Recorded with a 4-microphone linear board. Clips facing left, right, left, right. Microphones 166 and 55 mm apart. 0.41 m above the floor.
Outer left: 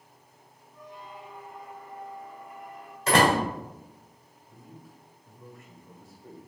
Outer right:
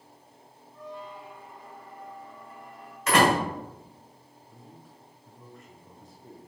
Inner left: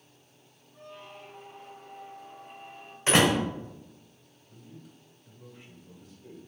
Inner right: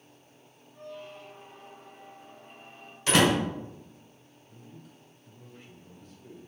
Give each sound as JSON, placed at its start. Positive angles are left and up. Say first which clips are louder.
{"t": 0.7, "sound": "a squeak", "louder": "outer right 4 dB, inner right 3 dB", "side_deg": 20, "distance_m": 1.1}
{"t": 3.1, "sound": "a door slam", "louder": "even, even", "side_deg": 35, "distance_m": 1.5}
{"t": 4.5, "sound": "a man speaking", "louder": "outer left 2 dB, inner left 1 dB", "side_deg": 5, "distance_m": 1.6}